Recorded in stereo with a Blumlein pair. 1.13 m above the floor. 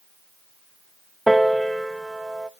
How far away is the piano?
About 0.5 m.